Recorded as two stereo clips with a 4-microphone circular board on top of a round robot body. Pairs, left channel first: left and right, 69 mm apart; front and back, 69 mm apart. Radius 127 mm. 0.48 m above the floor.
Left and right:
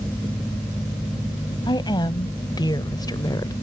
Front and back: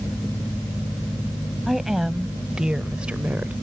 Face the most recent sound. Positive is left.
turn(degrees=115)